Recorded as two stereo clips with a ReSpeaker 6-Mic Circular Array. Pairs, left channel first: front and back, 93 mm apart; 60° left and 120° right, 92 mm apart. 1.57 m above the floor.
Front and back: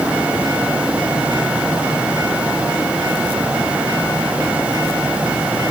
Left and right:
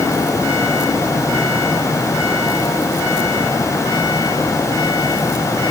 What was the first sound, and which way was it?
Only background noise.